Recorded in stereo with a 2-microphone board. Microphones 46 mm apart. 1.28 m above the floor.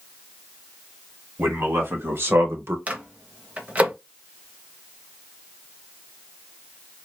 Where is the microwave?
35° right (ahead or behind), 0.8 m.